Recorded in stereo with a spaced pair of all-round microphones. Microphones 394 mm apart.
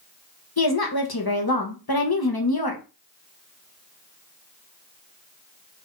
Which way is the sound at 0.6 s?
65° left (ahead or behind).